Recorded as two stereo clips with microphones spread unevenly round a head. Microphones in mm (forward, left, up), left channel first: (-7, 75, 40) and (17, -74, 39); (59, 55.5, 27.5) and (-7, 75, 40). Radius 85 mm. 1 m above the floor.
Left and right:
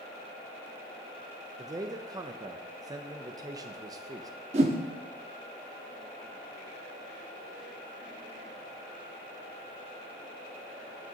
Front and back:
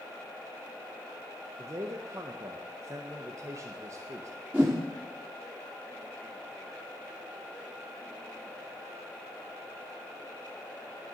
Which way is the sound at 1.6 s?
145° right.